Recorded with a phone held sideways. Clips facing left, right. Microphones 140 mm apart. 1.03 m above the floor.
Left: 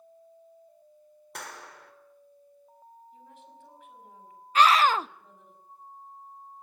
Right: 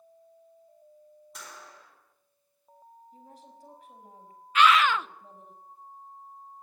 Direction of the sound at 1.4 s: 65° left (ahead or behind).